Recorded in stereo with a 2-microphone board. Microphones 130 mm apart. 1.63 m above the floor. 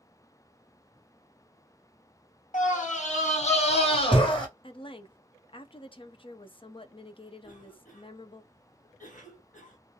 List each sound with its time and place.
2.5 s a scream: 75° left (ahead or behind), 1.4 m; by 4.5 s 35° left (ahead or behind), 1.4 m
4.6 s a woman speaking: 40° left (ahead or behind), 0.6 m
7.4 s a cough: 85° left, 1.7 m